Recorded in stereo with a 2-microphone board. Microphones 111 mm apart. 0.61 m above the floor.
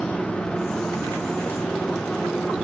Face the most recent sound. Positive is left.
turn(degrees=5)  # may be behind; listen again after turning